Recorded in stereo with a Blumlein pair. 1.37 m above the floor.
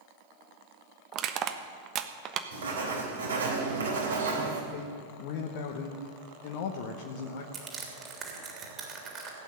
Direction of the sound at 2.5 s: 70° right.